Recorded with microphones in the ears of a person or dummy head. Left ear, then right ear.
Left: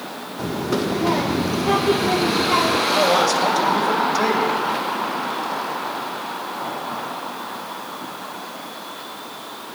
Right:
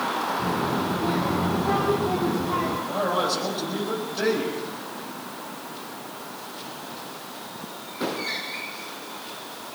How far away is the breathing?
I don't hear breathing.